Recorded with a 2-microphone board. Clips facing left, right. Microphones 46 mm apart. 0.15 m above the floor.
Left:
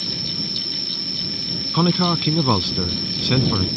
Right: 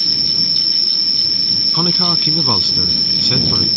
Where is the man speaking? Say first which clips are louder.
Left 2 dB; 5° left (ahead or behind).